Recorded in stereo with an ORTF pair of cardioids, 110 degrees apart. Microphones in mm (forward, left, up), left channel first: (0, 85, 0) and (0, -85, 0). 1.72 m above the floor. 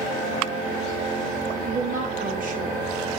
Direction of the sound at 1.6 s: 55° right.